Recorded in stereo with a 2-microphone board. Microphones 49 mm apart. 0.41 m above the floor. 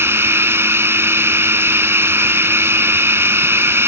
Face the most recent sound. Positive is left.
turn(degrees=-60)  # may be behind; listen again after turning